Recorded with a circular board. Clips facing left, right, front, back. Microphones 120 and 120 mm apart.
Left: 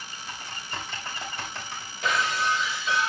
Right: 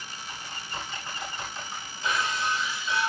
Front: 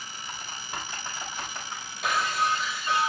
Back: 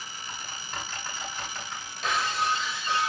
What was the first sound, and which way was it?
Typing on a keyboard, 75° left.